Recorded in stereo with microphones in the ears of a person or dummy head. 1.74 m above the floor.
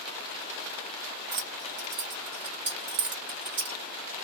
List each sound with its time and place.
1.3 s keys jangling: 45° right (ahead or behind), 1.1 m